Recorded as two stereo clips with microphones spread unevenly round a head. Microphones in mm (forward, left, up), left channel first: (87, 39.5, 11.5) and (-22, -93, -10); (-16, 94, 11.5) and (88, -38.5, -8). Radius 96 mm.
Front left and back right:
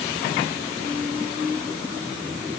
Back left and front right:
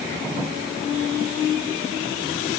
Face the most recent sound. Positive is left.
No sound to turn to.